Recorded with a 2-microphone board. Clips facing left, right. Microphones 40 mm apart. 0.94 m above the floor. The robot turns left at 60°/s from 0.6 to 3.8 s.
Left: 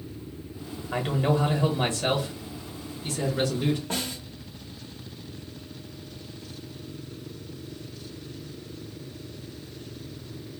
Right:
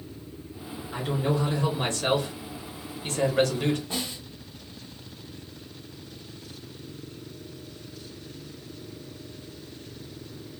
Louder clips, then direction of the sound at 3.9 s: Left 1 dB; 55° left (ahead or behind).